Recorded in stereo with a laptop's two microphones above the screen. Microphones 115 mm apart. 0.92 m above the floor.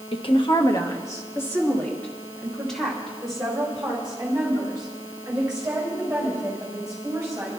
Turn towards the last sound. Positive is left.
turn(degrees=-10)  # may be behind; listen again after turning